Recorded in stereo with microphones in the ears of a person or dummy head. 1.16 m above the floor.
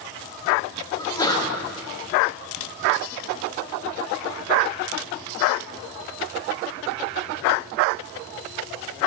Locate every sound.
1.0 s a sneeze: 20° left (ahead or behind), 0.9 m